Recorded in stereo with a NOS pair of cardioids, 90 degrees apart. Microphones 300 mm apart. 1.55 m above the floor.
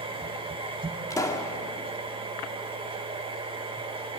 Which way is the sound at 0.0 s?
15° right.